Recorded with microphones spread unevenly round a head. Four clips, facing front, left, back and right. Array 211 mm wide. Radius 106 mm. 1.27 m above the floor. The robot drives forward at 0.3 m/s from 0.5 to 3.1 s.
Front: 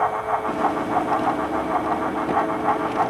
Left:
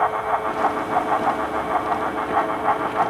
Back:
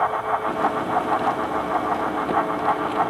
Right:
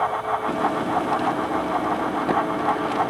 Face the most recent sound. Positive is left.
No sound to turn to.